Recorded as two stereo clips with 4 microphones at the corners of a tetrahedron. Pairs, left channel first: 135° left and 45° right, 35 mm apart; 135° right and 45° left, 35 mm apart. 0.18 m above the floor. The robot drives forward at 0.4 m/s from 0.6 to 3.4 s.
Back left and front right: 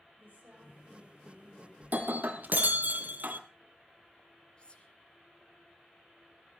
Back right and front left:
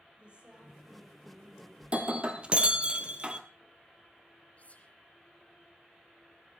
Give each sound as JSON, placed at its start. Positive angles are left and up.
{"t": 0.2, "sound": "a woman speaking", "azimuth_deg": -15, "distance_m": 5.0}
{"t": 1.8, "sound": "breaking glass", "azimuth_deg": -10, "distance_m": 1.8}
{"t": 4.6, "sound": "whispering", "azimuth_deg": -170, "distance_m": 2.5}